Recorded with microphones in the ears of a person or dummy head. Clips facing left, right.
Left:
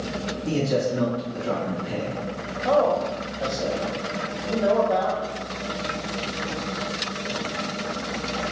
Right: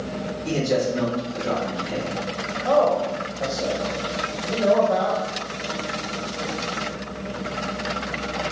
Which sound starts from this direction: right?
A man speaking, at 0.5 s.